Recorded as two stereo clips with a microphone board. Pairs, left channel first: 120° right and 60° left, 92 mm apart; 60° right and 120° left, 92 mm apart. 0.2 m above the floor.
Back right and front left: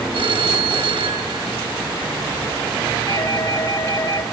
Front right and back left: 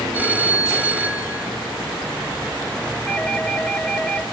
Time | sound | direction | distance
0.1 | a phone ringing | 45° left | 2 m
3.1 | a doorbell | 140° right | 2.5 m